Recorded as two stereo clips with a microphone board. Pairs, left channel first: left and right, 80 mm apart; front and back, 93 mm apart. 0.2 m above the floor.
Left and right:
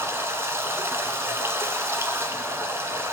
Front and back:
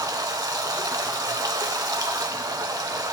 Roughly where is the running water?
Behind right.